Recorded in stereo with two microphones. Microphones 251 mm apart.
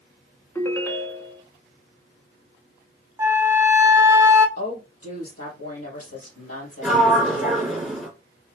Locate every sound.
0.6 s a ringtone: 10° left (ahead or behind), 0.6 m
3.2 s a flute: 10° right (ahead or behind), 0.6 m
4.6 s a woman speaking: 70° left (ahead or behind), 3.5 m
6.8 s a sliding door: centre (ahead or behind), 2.5 m